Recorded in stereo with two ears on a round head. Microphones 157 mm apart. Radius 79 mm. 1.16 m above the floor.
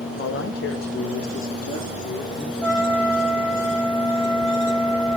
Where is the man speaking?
75° left (ahead or behind), 1.8 m; by 2.5 s 45° left (ahead or behind), 3 m.